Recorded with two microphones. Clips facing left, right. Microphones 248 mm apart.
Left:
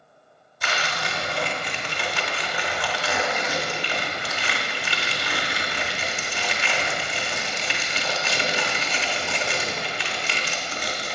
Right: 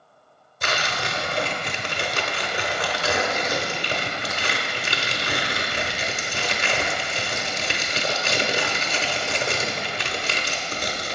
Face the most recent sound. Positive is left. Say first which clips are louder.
# right 2 dB
turn(degrees=-50)  # may be behind; listen again after turning